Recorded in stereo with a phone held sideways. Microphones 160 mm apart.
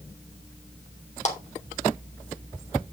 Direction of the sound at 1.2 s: 45° left (ahead or behind).